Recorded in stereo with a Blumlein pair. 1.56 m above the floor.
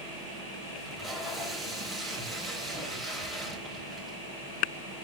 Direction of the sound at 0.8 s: 5° right.